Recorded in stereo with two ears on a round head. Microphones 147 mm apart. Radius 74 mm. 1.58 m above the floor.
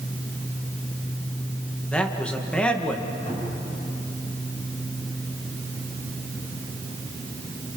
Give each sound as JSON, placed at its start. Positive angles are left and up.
{"t": 1.9, "sound": "a man speaking", "side_deg": 5, "distance_m": 1.9}
{"t": 3.3, "sound": "a cupboard door", "side_deg": 45, "distance_m": 8.0}